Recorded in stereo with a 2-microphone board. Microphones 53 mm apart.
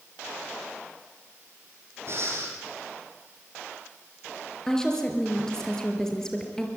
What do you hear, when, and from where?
2.1 s breathing: 55° right (ahead or behind), 6.5 m
4.7 s a woman speaking: 10° left (ahead or behind), 4.5 m